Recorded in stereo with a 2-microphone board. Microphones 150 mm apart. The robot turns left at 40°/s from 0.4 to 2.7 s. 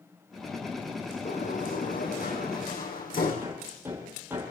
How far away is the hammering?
About 7 m.